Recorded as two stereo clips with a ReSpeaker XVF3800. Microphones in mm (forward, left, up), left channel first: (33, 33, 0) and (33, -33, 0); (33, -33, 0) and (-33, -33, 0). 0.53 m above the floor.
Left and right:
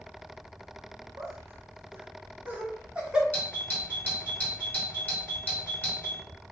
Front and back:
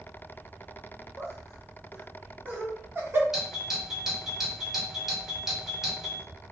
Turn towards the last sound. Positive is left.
turn(degrees=105)